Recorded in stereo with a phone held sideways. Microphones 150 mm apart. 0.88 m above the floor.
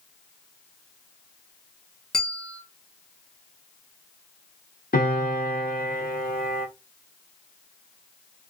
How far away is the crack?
No crack in this recording.